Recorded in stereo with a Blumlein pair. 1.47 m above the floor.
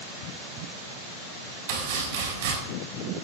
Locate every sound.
1.7 s chopping: 55° right, 6 m